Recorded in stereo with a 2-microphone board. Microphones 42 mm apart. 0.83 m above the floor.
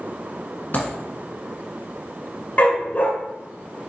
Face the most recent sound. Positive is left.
turn(degrees=40)  # may be behind; listen again after turning